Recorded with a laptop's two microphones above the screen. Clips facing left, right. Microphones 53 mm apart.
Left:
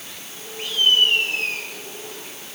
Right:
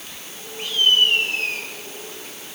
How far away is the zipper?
I don't hear a zipper.